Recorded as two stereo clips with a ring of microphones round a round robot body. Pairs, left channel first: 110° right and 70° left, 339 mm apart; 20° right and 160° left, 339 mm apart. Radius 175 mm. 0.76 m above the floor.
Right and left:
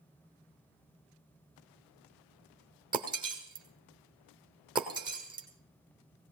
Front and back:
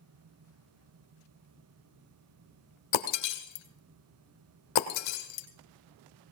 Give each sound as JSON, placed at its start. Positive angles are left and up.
{"t": 2.9, "sound": "breaking glass", "azimuth_deg": -10, "distance_m": 1.6}